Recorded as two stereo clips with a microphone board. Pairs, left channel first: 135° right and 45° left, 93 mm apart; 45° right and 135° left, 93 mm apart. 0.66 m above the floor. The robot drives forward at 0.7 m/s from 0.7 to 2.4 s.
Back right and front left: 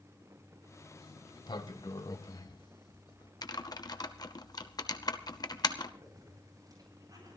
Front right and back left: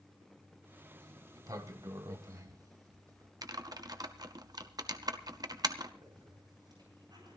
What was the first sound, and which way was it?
A sliding door, 170° right.